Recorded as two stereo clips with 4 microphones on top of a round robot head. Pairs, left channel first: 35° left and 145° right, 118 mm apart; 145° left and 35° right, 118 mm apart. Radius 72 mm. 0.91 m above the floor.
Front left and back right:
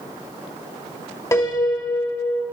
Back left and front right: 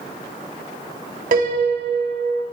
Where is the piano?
30° right, 2.5 m.